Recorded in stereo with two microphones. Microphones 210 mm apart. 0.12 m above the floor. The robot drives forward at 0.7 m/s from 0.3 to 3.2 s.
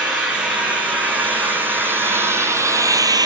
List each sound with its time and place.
0.0 s an engine running: 5° right (ahead or behind), 3 m; by 3.3 s 20° right (ahead or behind), 0.9 m